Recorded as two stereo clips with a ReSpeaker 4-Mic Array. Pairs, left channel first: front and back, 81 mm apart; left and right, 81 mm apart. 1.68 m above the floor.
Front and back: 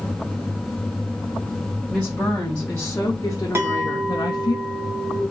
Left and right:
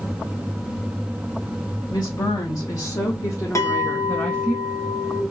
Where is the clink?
130° left, 1.2 m.